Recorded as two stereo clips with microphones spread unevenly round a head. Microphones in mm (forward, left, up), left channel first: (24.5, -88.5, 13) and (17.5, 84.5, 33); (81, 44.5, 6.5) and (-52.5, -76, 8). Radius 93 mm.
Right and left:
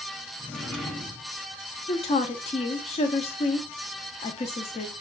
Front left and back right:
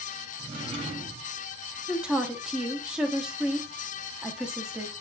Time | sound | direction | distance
0.4 | a drawer | 175° left | 0.5 m
1.9 | a woman speaking | 55° right | 0.6 m